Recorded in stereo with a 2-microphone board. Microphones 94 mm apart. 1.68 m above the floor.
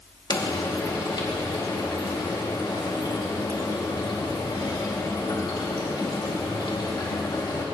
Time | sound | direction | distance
0.3 | frying | 55° left (ahead or behind) | 2.5 m